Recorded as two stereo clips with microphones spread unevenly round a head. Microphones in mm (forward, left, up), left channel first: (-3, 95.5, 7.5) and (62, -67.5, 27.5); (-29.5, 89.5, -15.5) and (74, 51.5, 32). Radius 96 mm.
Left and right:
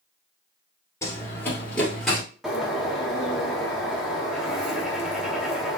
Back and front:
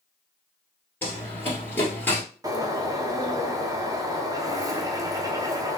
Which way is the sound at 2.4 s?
15° left.